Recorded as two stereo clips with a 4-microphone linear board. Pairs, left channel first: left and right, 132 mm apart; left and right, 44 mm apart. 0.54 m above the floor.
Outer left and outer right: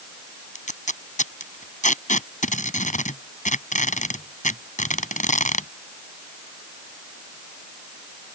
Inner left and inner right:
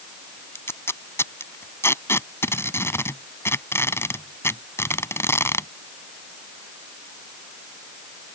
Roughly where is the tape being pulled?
Left.